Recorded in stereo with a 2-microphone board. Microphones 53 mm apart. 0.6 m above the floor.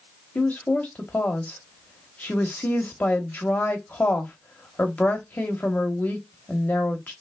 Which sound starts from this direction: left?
A woman speaking, at 0.3 s.